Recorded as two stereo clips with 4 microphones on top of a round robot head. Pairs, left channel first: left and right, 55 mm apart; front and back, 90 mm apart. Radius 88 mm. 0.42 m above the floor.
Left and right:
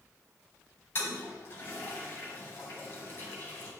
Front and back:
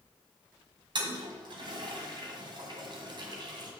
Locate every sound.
0.9 s a toilet flushing: 145° left, 1.4 m